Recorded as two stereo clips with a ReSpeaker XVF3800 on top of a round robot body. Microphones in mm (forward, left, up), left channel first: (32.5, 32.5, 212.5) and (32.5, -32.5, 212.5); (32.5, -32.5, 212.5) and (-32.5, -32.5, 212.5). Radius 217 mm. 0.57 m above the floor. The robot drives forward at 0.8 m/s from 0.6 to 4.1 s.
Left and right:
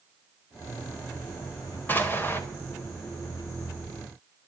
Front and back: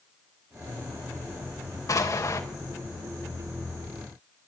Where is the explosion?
30° left, 3.5 m; by 2.4 s 35° left, 3 m.